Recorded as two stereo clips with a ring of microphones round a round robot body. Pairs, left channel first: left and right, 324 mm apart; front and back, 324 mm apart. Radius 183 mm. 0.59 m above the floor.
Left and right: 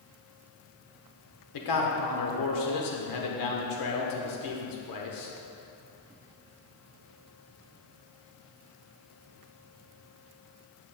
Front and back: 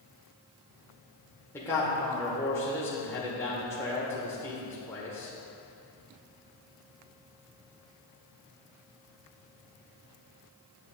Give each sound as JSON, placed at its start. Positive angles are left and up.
{"t": 1.5, "sound": "a man speaking", "azimuth_deg": 80, "distance_m": 1.7}